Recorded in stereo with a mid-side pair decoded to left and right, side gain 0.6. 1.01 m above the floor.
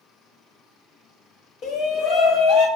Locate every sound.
1.6 s a shout: 60° left, 1.4 m; by 2.7 s 55° left, 2.5 m